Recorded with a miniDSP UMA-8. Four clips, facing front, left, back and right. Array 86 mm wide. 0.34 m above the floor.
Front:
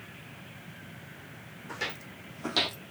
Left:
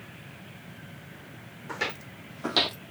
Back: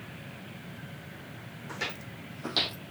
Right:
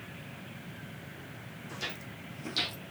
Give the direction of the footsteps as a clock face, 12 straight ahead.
9 o'clock.